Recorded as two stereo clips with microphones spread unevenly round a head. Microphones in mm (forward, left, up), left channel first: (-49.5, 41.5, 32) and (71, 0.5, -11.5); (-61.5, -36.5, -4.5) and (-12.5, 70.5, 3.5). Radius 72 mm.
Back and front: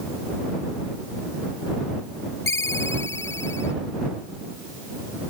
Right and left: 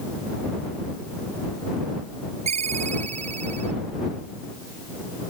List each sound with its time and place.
2.5 s a ringtone: 95° left